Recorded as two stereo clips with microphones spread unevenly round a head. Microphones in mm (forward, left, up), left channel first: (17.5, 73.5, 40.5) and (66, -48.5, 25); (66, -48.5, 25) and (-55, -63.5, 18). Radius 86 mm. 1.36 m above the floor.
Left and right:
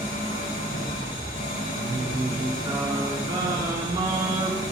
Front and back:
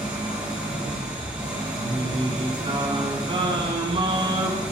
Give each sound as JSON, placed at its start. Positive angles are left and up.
{"t": 0.0, "sound": "an engine running", "azimuth_deg": 105, "distance_m": 5.5}
{"t": 1.8, "sound": "singing", "azimuth_deg": -130, "distance_m": 3.5}